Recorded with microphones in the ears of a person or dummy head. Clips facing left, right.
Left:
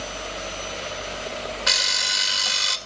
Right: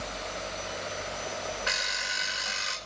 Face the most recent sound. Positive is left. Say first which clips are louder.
# left 5 dB
turn(degrees=60)  # may be behind; listen again after turning